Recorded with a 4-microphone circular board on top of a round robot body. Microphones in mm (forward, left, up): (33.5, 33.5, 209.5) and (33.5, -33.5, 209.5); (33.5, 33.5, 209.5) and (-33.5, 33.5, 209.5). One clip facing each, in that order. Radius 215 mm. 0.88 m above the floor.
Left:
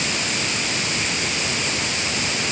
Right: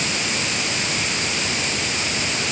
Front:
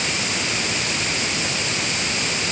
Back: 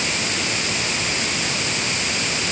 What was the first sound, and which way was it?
Only background noise.